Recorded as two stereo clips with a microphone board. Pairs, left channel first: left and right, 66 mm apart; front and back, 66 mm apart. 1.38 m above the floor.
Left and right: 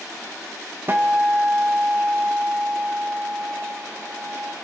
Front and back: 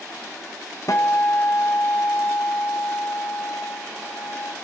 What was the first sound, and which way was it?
A guitar, 35° right.